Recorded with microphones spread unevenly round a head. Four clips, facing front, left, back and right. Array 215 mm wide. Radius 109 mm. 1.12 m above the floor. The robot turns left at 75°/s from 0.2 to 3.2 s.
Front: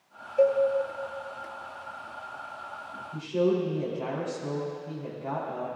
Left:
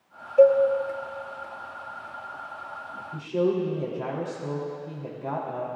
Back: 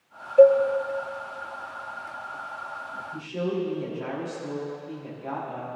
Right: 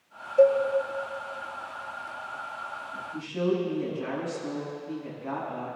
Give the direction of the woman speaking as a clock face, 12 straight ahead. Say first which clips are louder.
Left 3 dB, front 4 dB; 9 o'clock.